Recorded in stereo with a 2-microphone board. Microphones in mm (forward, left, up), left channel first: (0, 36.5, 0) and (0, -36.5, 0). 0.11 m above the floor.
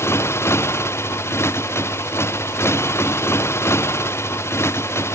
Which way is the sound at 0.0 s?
35° left (ahead or behind).